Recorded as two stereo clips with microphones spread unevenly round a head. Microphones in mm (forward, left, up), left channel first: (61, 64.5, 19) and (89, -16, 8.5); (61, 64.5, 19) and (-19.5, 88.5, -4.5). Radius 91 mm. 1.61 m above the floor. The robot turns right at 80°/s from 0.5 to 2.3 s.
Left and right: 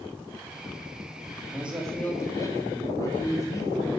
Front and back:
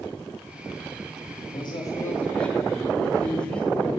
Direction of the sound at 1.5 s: 5° right.